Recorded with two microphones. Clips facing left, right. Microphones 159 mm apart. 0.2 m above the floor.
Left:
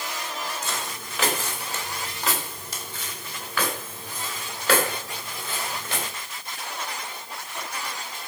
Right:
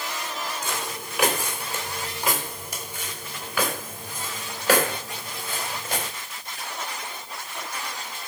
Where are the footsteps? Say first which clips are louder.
Right 2 dB; 15° right (ahead or behind), 3 m; by 6.1 s 10° right (ahead or behind), 6.5 m.